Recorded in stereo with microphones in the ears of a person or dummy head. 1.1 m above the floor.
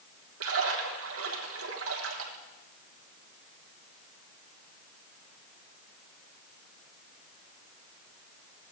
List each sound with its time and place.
0.4 s a splash: 65° right (ahead or behind), 1.1 m